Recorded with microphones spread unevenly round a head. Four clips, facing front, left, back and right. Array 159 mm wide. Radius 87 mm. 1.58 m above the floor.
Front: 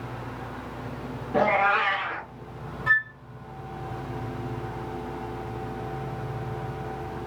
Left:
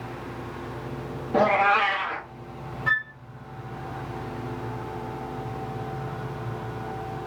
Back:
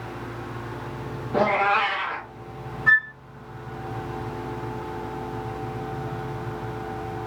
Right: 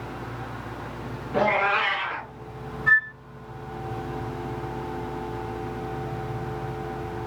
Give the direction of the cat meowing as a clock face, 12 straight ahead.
8 o'clock.